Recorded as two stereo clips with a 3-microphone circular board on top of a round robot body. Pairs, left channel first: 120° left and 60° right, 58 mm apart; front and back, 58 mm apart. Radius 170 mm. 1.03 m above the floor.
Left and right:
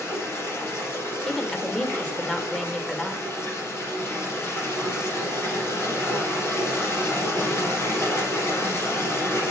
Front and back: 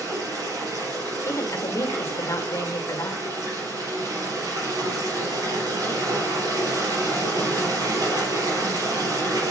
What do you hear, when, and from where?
0.0 s running water: 170° left, 4 m
1.3 s a woman speaking: 45° left, 2 m